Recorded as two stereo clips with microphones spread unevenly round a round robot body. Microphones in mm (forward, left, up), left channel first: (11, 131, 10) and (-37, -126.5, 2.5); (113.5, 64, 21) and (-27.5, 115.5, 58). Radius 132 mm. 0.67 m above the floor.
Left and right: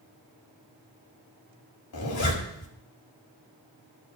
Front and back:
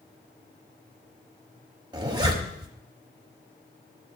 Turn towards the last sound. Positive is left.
turn(degrees=95)